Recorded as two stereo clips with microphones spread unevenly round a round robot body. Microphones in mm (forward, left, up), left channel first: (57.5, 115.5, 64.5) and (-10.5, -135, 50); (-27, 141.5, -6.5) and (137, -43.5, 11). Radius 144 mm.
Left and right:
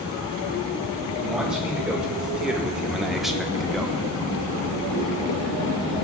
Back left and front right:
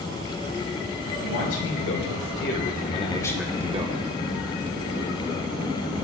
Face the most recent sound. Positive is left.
turn(degrees=-20)